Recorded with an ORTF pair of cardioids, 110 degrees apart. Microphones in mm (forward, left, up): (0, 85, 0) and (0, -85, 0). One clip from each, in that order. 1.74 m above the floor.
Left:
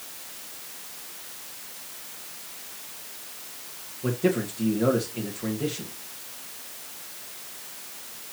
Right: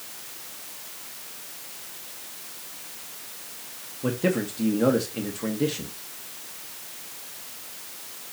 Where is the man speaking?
20° right, 1.9 m.